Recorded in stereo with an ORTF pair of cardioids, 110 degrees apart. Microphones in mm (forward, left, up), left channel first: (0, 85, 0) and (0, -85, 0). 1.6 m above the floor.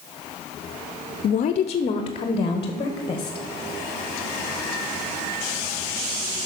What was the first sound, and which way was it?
A woman speaking, 50° left.